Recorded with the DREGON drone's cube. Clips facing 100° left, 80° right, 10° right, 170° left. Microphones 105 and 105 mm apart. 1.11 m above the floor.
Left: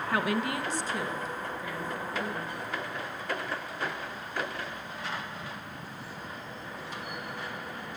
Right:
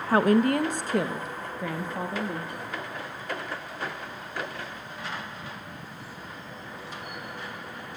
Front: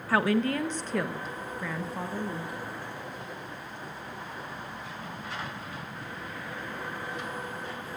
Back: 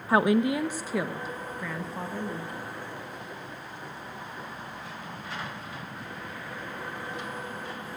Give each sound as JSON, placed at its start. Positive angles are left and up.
{"t": 0.1, "sound": "a woman speaking", "azimuth_deg": -125, "distance_m": 0.7}